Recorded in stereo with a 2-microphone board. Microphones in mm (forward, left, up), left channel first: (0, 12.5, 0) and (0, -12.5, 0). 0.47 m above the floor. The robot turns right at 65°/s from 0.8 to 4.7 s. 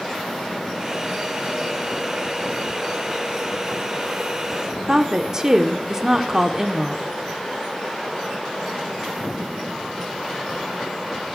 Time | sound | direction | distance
4.9 | a woman speaking | 25° right (ahead or behind) | 0.7 m